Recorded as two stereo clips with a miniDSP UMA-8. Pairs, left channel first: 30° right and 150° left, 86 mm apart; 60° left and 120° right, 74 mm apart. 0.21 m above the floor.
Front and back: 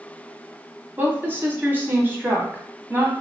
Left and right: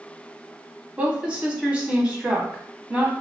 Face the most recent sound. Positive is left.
turn(degrees=180)